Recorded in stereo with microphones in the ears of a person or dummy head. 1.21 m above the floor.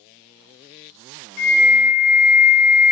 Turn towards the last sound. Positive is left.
turn(degrees=55)  # may be behind; listen again after turning